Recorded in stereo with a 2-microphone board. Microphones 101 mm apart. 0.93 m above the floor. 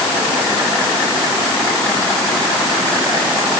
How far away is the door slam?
No door slam in this recording.